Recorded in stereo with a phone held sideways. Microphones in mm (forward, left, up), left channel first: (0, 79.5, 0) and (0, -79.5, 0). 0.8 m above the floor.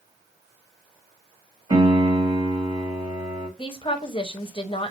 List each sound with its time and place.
1.7 s a piano: 25° right (ahead or behind), 1.4 m
3.6 s a woman speaking: 35° left (ahead or behind), 0.8 m